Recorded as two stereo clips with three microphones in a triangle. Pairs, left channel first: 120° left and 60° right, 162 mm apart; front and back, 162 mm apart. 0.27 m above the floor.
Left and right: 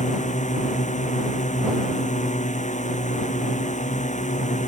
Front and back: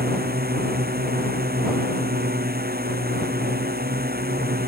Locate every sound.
0.0 s a drone: 160° left